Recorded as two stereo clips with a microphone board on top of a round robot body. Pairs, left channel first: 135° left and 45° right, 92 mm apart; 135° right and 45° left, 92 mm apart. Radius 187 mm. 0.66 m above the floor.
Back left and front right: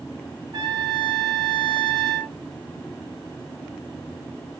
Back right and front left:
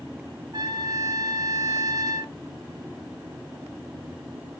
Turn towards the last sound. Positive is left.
turn(degrees=-5)